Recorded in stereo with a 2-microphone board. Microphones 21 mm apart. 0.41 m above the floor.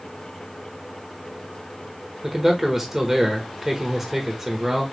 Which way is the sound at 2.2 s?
25° right (ahead or behind).